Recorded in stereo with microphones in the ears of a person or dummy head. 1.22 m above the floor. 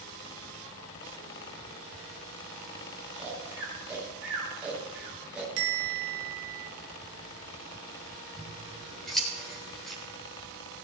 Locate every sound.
3.1 s snoring: 10° right (ahead or behind), 4.5 m
5.6 s a bell: 60° right (ahead or behind), 3 m
8.4 s scissors: centre (ahead or behind), 4 m